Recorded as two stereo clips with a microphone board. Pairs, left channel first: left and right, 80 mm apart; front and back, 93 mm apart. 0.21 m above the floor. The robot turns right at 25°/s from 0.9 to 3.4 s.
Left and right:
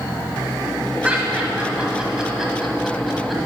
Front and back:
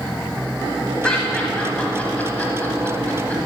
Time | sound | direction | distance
1.0 | laughter | 55° right | 1.1 m